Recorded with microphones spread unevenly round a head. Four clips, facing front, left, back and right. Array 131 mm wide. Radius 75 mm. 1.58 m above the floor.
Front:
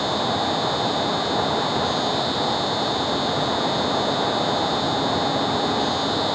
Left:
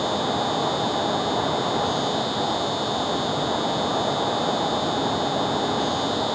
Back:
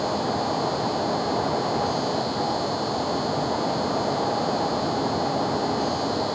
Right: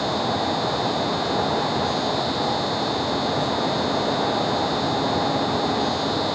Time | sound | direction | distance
0.0 | an insect | 5° left | ?